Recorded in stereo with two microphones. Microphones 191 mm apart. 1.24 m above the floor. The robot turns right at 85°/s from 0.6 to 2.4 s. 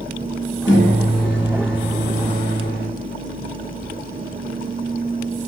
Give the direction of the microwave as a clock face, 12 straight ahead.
9 o'clock.